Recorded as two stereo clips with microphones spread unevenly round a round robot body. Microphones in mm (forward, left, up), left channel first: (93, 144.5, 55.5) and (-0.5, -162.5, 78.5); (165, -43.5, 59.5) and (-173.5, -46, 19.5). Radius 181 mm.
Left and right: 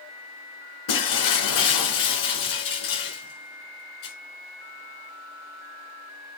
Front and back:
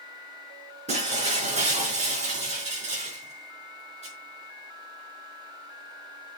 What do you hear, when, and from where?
0.9 s breaking glass: 105° left, 4 m